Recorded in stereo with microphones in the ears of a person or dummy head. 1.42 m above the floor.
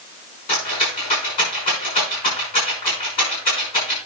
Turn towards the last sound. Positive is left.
turn(degrees=40)  # may be behind; listen again after turning